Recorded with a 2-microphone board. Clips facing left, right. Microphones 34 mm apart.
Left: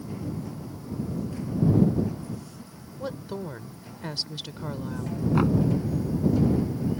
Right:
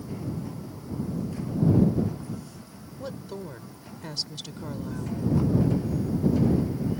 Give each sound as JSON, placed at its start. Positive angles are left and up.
{"t": 3.0, "sound": "a woman speaking", "side_deg": 15}
{"t": 5.3, "sound": "knocking", "side_deg": 75}